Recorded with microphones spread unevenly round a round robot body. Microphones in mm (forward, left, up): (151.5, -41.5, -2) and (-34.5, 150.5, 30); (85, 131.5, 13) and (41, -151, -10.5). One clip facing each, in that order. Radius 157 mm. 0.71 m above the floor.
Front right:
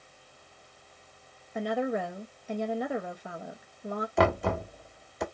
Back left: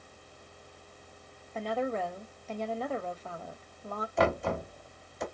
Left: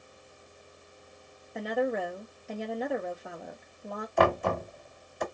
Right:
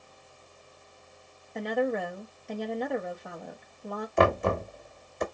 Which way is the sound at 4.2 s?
35° right.